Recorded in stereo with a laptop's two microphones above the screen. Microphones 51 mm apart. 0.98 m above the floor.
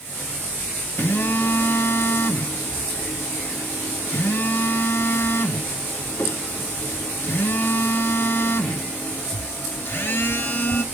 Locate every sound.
1.0 s a phone buzzing: 45° left (ahead or behind), 0.7 m